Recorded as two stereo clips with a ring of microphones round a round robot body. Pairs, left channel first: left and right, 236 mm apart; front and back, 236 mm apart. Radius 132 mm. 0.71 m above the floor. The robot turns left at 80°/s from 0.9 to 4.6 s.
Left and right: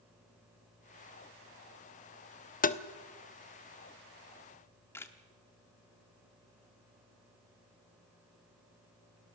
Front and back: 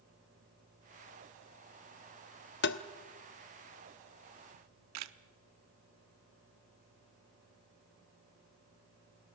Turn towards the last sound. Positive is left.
turn(degrees=170)